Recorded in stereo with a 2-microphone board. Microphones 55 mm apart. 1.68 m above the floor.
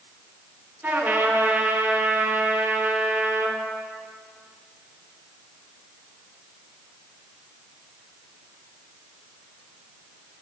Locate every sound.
0.8 s a trumpet: 30° right (ahead or behind), 1.5 m